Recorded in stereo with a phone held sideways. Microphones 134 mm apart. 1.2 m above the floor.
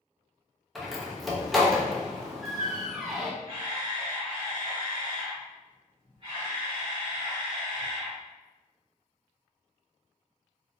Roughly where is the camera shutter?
Right.